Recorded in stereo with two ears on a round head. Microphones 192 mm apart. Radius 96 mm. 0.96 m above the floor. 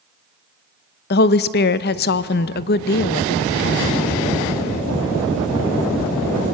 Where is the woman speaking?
50° left (ahead or behind), 0.6 m.